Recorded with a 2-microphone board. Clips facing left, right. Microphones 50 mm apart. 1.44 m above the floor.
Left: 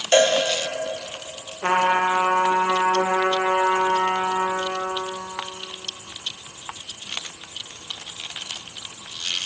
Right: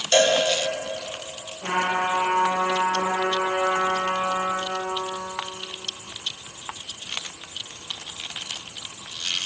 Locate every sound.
0.1 s a cowbell: 25° left (ahead or behind), 0.9 m
1.6 s a trumpet: 60° left (ahead or behind), 0.8 m